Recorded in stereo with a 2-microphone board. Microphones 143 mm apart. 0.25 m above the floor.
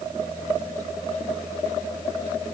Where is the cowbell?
I don't hear a cowbell.